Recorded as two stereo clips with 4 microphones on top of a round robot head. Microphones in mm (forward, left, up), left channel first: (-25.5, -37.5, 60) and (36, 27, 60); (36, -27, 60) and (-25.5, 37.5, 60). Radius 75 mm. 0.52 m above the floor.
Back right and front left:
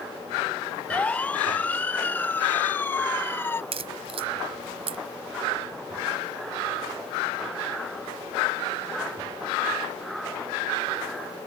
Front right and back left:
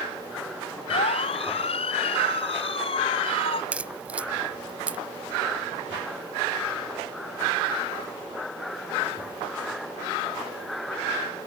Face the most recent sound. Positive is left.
turn(degrees=60)